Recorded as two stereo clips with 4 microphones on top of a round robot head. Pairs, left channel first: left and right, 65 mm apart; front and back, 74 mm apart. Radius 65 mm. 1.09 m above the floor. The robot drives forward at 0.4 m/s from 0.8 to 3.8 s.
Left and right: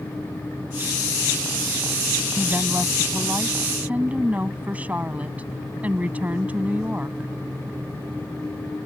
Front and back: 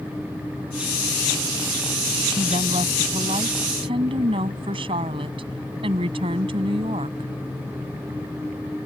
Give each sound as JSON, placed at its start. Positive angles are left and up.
{"t": 2.4, "sound": "a woman speaking", "azimuth_deg": -165}